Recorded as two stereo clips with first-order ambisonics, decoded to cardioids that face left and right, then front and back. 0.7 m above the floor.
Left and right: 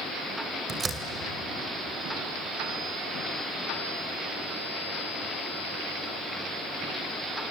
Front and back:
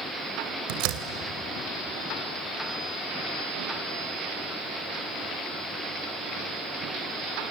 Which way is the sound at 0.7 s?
165° right.